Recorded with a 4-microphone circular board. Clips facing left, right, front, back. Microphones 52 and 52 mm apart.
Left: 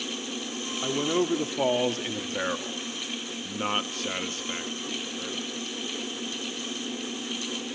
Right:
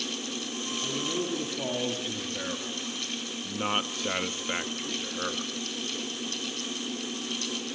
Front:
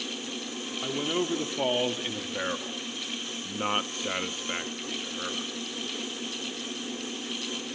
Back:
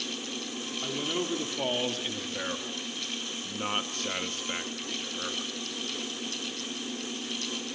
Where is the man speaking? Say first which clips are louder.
Left 7 dB, front 3 dB; 75° left, 1.8 m; by 5.5 s 80° right, 1.2 m.